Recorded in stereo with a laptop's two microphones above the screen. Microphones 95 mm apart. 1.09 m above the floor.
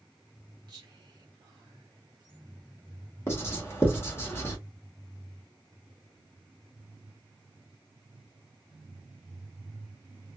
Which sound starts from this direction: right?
Whispering, at 0.7 s.